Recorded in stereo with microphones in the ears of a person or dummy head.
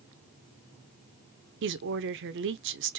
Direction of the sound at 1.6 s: 55° right (ahead or behind).